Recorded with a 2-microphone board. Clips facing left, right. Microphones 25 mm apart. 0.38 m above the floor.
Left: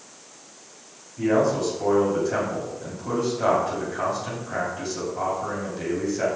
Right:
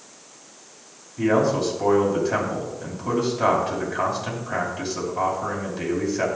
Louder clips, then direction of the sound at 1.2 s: Right 1 dB; 25° right (ahead or behind).